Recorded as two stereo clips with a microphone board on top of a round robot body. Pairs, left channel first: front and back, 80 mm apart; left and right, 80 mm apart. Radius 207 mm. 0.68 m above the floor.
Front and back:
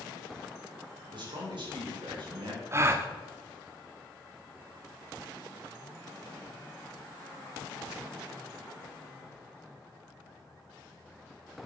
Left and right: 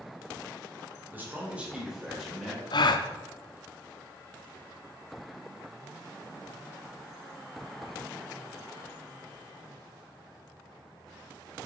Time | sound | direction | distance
1.1 | a man speaking | 155° right | 4 m
2.7 | a gasp | 120° left | 0.7 m